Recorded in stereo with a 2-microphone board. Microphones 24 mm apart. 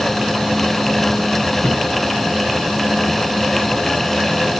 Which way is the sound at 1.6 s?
60° left (ahead or behind).